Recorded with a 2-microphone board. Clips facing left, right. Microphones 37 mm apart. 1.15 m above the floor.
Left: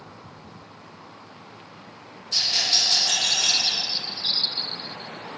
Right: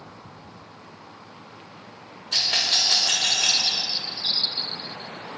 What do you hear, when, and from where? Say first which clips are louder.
2.3 s a rattle: right 1 dB; 45° right (ahead or behind), 4.5 m
3.6 s a bird: even; 70° left (ahead or behind), 3.5 m